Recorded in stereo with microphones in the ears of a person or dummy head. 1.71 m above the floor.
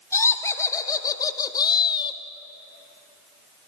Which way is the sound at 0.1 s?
15° left (ahead or behind).